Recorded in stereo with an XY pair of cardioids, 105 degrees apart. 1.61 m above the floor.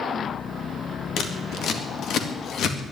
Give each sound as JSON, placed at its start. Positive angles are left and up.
{"t": 1.2, "sound": "scissors", "azimuth_deg": 70, "distance_m": 2.0}